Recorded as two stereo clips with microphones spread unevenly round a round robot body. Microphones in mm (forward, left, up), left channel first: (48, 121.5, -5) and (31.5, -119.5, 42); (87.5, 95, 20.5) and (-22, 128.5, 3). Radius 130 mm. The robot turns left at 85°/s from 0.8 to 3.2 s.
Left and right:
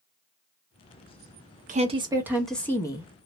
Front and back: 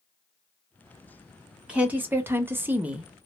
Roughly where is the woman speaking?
Behind right.